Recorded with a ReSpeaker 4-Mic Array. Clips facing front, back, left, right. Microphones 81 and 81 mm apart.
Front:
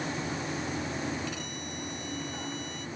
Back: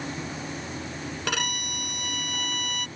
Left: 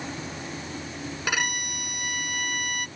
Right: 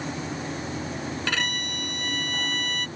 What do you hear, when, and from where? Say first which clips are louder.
1.3 s a violin: back 6 dB, left 3 dB; 165° left